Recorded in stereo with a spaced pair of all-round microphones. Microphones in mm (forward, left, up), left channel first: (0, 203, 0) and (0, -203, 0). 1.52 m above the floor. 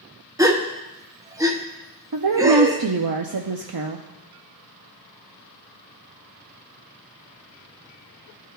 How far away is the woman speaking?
About 0.5 m.